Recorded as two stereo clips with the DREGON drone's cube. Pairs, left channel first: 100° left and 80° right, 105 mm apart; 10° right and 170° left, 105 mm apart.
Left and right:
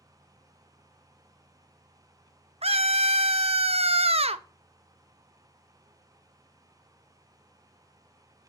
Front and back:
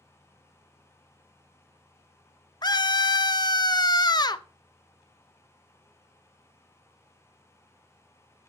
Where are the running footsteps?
I don't hear running footsteps.